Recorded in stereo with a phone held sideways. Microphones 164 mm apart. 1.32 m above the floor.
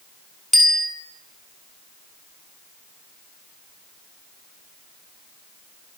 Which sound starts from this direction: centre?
A bicycle bell, at 0.5 s.